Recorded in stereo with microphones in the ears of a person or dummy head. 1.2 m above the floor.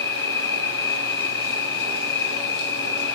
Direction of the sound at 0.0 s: 20° left (ahead or behind).